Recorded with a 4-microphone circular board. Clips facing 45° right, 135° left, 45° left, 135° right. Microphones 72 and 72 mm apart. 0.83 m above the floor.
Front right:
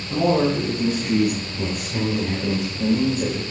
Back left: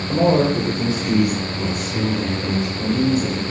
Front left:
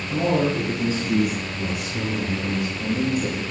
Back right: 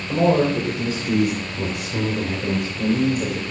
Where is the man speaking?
175° left, 3.5 m; by 3.4 s 100° right, 4 m.